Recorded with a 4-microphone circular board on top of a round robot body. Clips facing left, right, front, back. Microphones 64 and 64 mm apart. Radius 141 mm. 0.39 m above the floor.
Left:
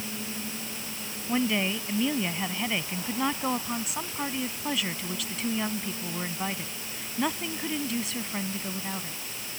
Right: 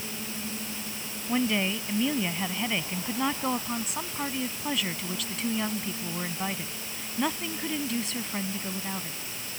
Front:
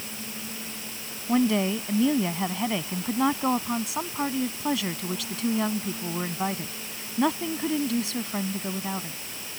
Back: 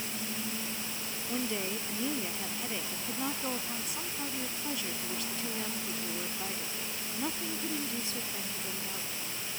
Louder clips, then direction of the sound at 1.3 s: Even, front 12 dB; straight ahead.